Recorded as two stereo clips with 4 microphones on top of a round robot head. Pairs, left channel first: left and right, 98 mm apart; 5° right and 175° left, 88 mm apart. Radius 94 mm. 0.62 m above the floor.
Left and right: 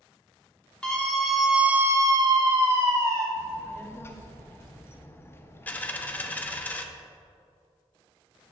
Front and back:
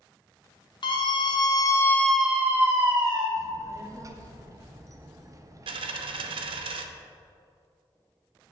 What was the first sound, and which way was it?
A scream, 10° left.